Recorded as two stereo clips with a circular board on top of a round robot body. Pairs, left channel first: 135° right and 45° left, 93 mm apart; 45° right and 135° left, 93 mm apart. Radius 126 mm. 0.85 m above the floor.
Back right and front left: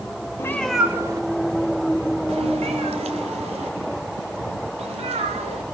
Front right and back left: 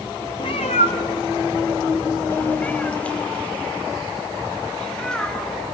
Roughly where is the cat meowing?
Right.